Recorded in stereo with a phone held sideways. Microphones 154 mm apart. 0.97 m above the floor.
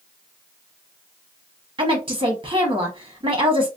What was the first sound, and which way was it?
A woman speaking, 35° right (ahead or behind).